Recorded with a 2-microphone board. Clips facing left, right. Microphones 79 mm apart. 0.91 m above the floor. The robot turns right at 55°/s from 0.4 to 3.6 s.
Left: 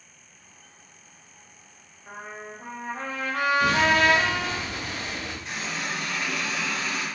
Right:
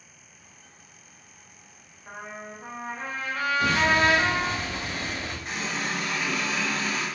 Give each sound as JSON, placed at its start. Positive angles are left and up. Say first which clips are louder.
{"t": 2.1, "sound": "a trumpet", "louder": "even", "azimuth_deg": -5, "distance_m": 0.7}
{"t": 3.6, "sound": "an explosion", "louder": "even", "side_deg": -20, "distance_m": 1.6}
{"t": 5.5, "sound": "a running tap", "louder": "right 2 dB", "side_deg": -45, "distance_m": 1.5}